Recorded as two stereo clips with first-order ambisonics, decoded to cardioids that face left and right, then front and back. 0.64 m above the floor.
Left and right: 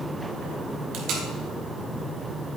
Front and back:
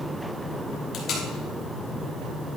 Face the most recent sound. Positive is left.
turn(degrees=-55)